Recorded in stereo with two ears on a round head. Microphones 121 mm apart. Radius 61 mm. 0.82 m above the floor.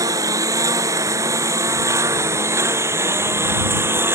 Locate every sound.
0.0 s a lawn mower: 25° right (ahead or behind); by 4.2 s 20° right (ahead or behind)